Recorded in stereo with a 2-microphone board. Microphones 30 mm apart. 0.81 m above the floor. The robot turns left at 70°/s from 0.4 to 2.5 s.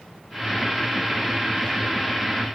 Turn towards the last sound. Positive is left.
No sound to turn to.